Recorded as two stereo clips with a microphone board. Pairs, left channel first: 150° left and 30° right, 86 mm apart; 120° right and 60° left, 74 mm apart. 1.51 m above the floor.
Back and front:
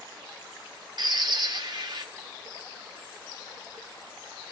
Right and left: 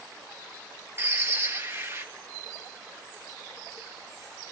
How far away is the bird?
About 1.5 m.